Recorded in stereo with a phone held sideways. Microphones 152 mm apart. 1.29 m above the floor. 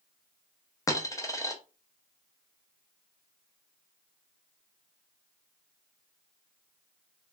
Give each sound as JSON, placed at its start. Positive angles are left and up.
{"t": 0.9, "sound": "a dropped coin", "side_deg": 20, "distance_m": 0.6}